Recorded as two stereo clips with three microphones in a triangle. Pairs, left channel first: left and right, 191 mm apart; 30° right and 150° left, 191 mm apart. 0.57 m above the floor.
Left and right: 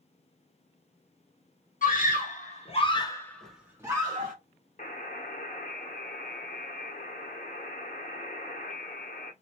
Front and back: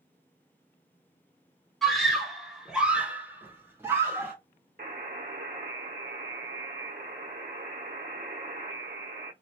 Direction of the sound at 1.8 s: 60° left.